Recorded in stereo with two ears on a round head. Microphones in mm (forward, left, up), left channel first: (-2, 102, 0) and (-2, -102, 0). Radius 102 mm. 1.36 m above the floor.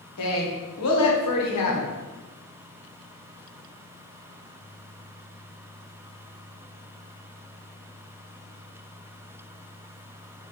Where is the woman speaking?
75° left (ahead or behind), 1.2 m.